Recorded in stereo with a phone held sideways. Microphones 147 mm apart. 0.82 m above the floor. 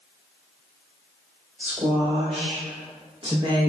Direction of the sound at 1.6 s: 30° right (ahead or behind).